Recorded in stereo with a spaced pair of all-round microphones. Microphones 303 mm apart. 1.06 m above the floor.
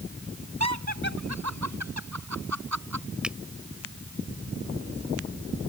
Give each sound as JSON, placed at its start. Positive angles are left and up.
{"t": 0.6, "sound": "laughter", "side_deg": -60}
{"t": 3.2, "sound": "a finger snap", "side_deg": -5}